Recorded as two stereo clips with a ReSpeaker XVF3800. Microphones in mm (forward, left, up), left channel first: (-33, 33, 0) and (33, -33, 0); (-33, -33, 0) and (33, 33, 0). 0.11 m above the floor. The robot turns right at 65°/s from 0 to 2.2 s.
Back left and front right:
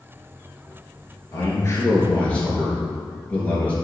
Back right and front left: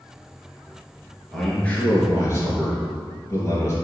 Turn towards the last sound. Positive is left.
turn(degrees=-165)